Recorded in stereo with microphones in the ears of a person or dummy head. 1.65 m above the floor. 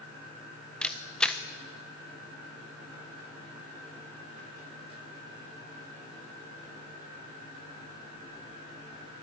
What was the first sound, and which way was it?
A camera shutter, 5° left (ahead or behind).